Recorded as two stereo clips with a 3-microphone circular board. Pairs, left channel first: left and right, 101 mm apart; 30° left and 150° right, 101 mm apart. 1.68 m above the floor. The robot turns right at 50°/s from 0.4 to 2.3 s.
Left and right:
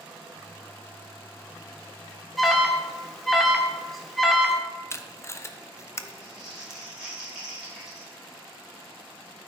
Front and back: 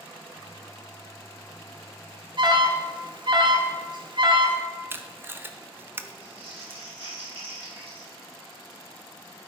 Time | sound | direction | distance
2.4 | an alarm | straight behind | 1.1 m
4.9 | tape being pulled | 145° left | 0.6 m
6.2 | crumpling | 175° right | 4.5 m